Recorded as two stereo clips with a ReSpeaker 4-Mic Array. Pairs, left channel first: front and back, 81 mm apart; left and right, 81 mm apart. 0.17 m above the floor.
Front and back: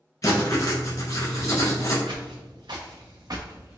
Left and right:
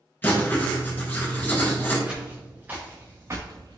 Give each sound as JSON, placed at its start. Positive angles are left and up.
{"t": 0.2, "sound": "writing", "azimuth_deg": 30, "distance_m": 1.1}
{"t": 2.1, "sound": "footsteps", "azimuth_deg": -170, "distance_m": 1.2}